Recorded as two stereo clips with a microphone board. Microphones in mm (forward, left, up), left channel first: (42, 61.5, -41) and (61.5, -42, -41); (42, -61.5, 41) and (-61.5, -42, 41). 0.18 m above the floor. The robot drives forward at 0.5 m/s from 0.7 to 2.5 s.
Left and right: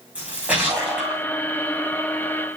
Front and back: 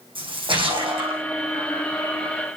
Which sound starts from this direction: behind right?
A splash, at 0.1 s.